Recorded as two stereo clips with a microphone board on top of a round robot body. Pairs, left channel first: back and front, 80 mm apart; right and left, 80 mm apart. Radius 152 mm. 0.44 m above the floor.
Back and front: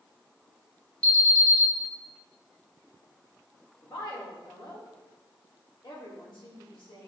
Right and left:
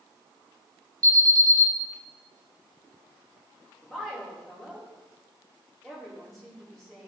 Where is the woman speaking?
175° right, 2 m.